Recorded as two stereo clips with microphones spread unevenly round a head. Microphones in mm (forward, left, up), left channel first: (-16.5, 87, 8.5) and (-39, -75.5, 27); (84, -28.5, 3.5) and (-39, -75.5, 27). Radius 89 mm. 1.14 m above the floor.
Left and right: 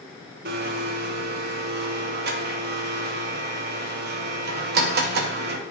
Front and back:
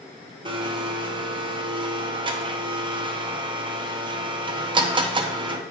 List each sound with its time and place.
0.5 s a blender: 115° right, 0.8 m